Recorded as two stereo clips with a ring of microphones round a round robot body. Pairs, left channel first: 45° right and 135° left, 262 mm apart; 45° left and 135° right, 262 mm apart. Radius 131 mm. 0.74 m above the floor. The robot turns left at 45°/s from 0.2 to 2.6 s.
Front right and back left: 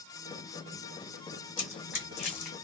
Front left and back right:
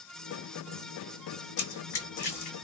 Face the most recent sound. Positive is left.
turn(degrees=-30)